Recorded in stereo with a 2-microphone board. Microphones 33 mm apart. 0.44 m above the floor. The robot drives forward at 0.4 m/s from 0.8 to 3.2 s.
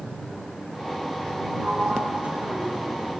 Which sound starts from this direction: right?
A sliding door, at 1.6 s.